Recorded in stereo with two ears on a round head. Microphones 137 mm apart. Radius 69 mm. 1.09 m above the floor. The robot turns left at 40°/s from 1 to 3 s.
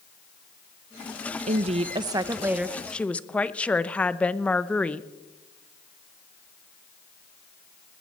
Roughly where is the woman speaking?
Behind right.